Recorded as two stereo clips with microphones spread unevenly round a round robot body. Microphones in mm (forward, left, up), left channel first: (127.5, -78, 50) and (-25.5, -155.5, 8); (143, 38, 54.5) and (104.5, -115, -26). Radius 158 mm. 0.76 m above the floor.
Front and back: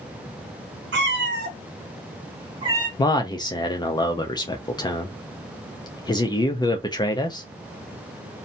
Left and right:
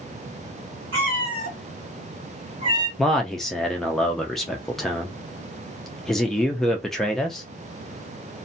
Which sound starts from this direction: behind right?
A cat meowing, at 0.9 s.